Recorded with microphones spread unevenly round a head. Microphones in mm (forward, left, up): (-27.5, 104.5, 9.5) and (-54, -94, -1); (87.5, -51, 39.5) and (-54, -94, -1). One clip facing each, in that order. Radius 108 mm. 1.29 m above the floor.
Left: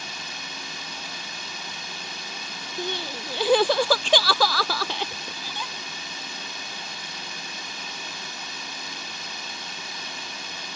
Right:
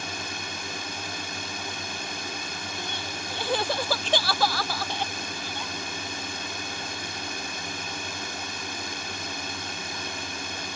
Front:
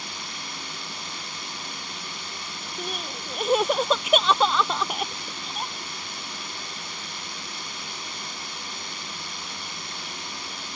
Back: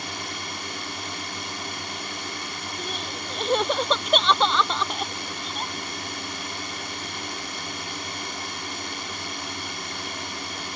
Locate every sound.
0.0 s a drone: 135° right
2.8 s crying: 100° left